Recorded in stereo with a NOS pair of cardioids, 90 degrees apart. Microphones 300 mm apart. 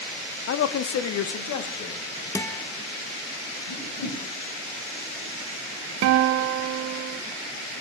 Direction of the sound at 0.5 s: 45° left.